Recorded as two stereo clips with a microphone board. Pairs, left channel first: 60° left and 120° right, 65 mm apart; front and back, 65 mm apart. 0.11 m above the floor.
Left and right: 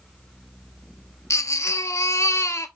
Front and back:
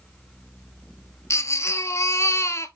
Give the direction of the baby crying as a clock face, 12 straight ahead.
11 o'clock.